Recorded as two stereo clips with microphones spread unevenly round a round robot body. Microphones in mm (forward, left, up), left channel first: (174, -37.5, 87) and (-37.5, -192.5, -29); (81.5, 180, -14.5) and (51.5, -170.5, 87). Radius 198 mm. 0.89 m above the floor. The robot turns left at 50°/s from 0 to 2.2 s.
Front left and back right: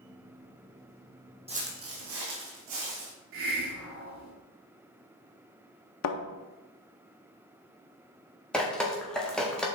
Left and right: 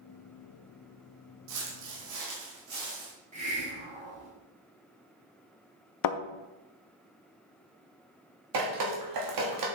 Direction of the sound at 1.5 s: 65° right.